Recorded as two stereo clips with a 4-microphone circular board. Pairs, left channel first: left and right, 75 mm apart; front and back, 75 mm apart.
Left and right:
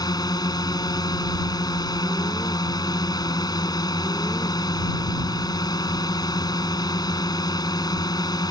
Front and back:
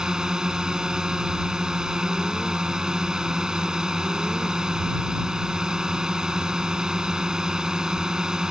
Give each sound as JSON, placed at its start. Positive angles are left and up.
{"t": 0.0, "sound": "a drone", "azimuth_deg": 100}